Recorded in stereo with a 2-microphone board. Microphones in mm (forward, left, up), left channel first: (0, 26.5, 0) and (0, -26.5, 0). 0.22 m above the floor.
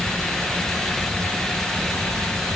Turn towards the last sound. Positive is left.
No sound to turn to.